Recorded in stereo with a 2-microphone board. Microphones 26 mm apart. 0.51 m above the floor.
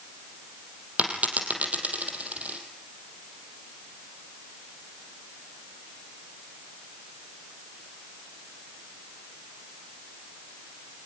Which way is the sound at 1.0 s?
80° right.